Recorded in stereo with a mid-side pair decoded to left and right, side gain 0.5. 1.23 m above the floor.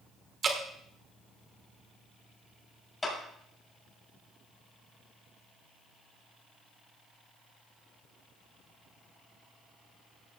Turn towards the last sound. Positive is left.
turn(degrees=25)